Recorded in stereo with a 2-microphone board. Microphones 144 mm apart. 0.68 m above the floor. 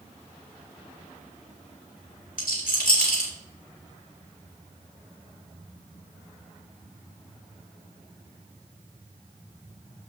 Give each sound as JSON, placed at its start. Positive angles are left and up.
{"t": 2.4, "sound": "a rattle", "side_deg": 75, "distance_m": 3.0}